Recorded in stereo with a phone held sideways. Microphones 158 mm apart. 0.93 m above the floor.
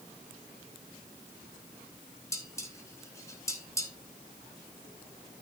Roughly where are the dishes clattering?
Centre.